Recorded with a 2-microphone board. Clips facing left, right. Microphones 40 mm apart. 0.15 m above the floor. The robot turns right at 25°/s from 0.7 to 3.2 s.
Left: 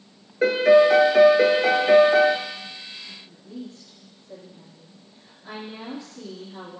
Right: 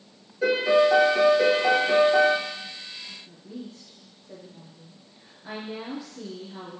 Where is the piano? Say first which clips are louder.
Left 5 dB; 85° left, 1.0 m; by 2.4 s 125° left, 1.0 m.